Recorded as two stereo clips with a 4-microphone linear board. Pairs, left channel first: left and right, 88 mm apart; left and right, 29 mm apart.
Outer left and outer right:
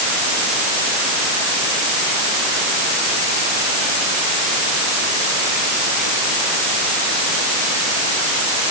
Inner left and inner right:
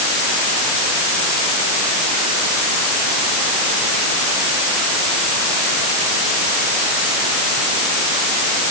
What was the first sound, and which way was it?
Only background noise.